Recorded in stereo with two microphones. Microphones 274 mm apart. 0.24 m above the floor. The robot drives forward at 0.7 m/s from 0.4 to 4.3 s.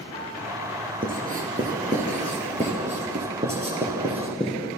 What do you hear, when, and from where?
1.0 s writing: 30° right (ahead or behind), 4 m; by 4.5 s 20° right (ahead or behind), 6 m